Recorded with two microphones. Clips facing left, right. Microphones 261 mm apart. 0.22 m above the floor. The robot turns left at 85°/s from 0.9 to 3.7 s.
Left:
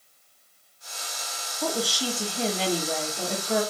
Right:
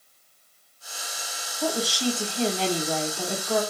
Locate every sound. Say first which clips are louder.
1.6 s a woman speaking: right 3 dB; 10° right (ahead or behind), 1.0 m; by 3.6 s 10° left (ahead or behind), 1.0 m